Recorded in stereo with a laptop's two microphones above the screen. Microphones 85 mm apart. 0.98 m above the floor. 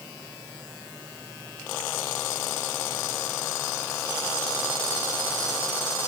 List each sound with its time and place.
Only background noise.